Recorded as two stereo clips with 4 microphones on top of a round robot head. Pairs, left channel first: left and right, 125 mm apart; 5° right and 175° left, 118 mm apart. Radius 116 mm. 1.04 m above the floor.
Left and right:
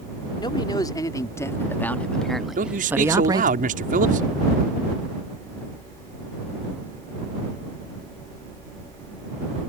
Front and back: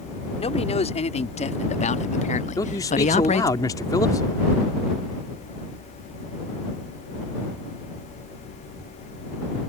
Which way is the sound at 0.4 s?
30° left.